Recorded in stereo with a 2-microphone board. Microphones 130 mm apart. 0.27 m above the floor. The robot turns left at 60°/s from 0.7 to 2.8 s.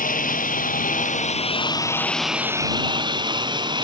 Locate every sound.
0.0 s a lawn mower: 95° left; by 3.9 s 35° right